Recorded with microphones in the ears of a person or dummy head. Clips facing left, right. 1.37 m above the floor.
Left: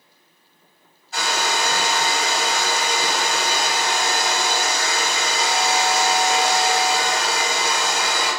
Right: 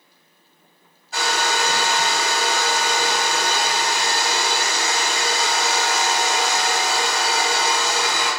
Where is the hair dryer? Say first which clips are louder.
Right 1 dB; 55° right (ahead or behind), 1.2 m.